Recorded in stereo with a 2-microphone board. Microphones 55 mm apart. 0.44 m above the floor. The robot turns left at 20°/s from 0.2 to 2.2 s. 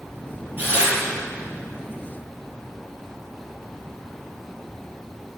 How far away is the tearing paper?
About 5 m.